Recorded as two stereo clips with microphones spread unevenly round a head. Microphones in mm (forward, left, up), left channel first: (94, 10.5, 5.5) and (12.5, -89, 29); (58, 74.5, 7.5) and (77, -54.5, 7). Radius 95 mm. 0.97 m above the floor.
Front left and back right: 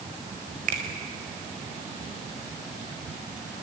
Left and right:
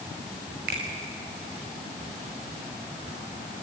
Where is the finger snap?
115° right, 4.5 m.